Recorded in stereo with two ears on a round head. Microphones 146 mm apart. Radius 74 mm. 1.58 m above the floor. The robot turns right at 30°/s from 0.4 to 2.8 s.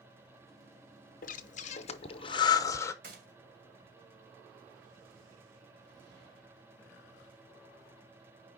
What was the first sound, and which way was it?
Breathing, 55° left (ahead or behind).